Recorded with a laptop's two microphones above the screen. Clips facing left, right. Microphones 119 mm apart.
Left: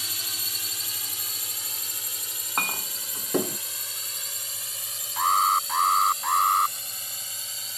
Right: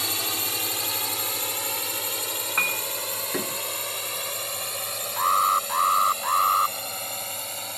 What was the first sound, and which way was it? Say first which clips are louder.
A drone: right 11 dB; 75° right (ahead or behind).